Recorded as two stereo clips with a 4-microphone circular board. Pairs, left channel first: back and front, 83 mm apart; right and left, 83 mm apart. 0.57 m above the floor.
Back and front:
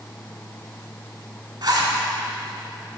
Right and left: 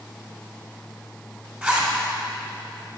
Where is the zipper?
25° left, 2 m.